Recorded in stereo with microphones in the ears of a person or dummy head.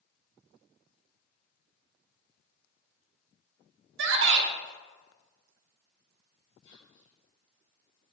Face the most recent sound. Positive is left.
turn(degrees=75)  # may be behind; listen again after turning